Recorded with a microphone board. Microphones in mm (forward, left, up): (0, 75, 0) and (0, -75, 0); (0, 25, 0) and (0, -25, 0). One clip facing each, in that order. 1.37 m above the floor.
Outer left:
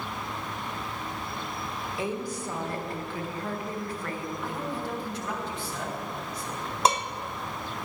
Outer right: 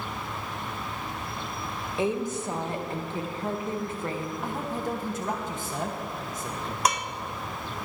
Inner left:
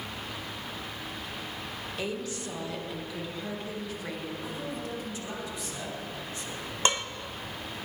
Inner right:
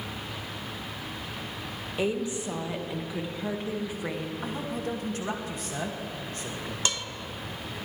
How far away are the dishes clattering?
About 0.8 m.